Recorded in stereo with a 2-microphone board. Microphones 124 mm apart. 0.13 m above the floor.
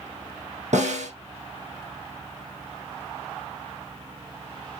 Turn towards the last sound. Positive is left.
turn(degrees=-75)  # may be behind; listen again after turning